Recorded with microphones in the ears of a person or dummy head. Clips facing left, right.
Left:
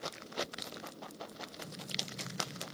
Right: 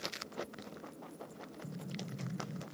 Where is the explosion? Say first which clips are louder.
Right 2 dB; 20° right (ahead or behind), 0.6 m.